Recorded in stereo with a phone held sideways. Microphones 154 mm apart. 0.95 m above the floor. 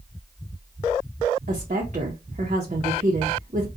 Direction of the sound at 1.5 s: 50° right (ahead or behind).